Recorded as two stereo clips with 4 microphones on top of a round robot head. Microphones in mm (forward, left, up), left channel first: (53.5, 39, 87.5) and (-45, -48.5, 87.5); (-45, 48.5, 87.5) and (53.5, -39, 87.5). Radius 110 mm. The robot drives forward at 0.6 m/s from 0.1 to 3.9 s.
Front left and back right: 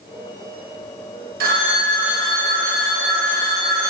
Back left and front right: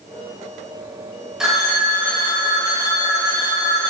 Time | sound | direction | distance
1.4 | a phone ringing | 125° right | 1.2 m